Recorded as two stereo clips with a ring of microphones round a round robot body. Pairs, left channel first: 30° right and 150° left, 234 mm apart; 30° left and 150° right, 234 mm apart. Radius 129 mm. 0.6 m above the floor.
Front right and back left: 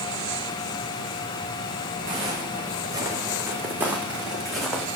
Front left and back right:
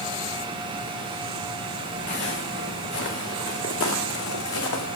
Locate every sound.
2.1 s footsteps: 80° left, 4 m; by 4.9 s 55° left, 3 m